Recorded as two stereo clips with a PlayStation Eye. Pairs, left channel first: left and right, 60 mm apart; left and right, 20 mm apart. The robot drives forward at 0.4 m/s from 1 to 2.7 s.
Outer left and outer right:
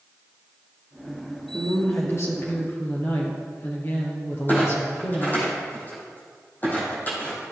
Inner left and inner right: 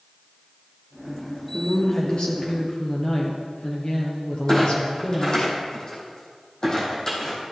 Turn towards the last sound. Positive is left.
turn(degrees=30)  # may be behind; listen again after turning